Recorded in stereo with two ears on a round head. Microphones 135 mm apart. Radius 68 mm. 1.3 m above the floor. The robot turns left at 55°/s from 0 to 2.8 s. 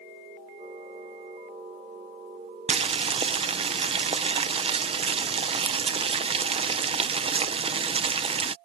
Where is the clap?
No clap in this recording.